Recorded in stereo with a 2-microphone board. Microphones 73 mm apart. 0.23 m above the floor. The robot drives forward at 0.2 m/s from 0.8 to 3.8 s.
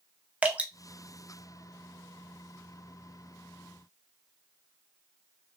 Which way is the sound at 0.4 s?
20° right (ahead or behind).